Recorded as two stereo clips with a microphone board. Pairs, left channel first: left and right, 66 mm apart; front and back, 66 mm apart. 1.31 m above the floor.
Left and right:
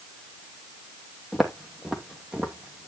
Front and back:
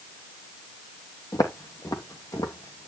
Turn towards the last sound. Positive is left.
turn(degrees=-20)